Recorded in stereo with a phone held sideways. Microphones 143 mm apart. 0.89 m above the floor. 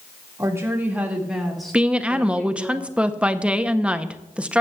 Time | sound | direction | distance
0.4 | a woman speaking | 20° right (ahead or behind) | 1.9 m
1.7 | a woman speaking | 10° right (ahead or behind) | 0.6 m